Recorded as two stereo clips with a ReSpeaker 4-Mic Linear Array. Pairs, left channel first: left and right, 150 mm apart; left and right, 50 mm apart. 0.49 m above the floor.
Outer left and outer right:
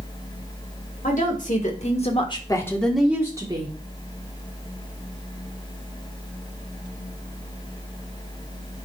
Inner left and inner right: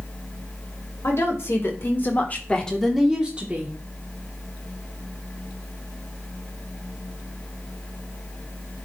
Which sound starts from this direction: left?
A woman speaking, at 1.0 s.